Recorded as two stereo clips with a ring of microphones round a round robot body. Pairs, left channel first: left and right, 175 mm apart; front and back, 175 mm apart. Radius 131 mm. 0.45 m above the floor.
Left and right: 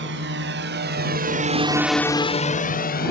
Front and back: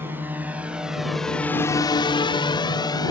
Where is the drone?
100° right; by 3.1 s 65° left.